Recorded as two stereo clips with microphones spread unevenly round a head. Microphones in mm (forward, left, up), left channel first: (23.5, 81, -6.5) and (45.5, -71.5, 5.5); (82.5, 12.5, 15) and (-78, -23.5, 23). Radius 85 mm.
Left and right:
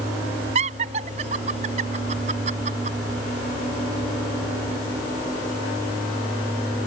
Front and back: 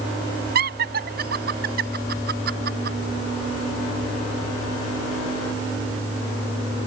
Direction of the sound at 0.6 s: 135° right.